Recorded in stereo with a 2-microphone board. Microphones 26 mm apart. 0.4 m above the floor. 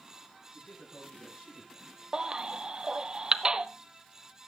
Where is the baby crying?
30° right (ahead or behind), 1.0 m.